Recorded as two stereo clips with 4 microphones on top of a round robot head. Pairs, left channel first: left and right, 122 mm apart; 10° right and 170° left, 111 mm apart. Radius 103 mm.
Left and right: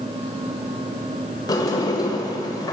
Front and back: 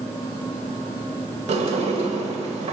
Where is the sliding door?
150° left, 1.5 m.